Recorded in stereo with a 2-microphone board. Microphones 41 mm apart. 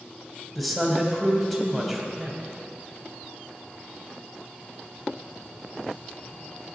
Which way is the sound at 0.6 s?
Centre (ahead or behind).